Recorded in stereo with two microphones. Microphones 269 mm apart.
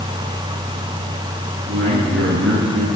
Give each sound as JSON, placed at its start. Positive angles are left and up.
{"t": 1.6, "sound": "a man speaking", "side_deg": -50, "distance_m": 7.5}